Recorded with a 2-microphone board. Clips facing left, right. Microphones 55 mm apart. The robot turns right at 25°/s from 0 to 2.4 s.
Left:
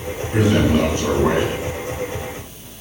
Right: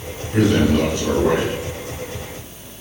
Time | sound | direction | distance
0.3 | a man speaking | 15° left | 3 m